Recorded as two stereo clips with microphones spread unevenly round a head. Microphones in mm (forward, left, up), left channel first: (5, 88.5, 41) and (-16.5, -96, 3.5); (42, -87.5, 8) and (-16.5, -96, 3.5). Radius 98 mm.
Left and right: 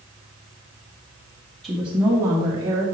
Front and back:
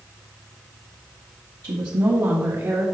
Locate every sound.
1.6 s a woman speaking: 170° left, 1.1 m; by 2.9 s 165° right, 1.7 m